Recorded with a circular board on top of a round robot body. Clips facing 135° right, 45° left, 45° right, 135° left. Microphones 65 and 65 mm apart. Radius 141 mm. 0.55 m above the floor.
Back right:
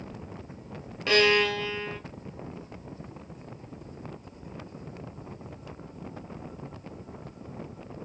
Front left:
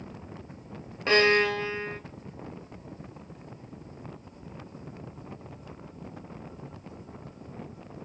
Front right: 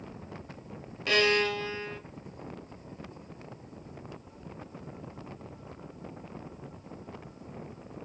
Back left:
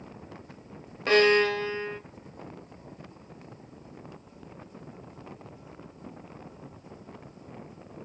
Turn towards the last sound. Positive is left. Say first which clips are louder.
# front left 1 dB, back left 5 dB
turn(degrees=95)